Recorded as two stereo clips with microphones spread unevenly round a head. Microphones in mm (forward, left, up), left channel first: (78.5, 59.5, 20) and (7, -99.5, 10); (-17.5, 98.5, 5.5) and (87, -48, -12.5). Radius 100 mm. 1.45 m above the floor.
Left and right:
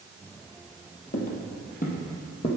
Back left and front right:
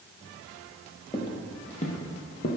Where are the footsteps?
70° left, 2 m; by 2.5 s 115° left, 2 m.